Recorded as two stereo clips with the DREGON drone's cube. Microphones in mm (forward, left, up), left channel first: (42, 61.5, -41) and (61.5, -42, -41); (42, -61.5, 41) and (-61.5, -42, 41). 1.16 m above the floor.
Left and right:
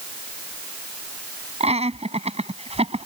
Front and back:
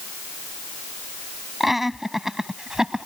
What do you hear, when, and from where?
1.6 s laughter: 100° right; by 3.1 s 105° right